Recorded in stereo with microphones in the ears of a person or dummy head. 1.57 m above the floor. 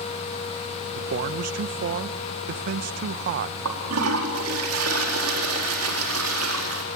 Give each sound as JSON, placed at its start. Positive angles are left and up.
{"t": 0.9, "sound": "a man speaking", "side_deg": -50, "distance_m": 1.0}
{"t": 3.6, "sound": "a toilet flushing", "side_deg": -85, "distance_m": 4.0}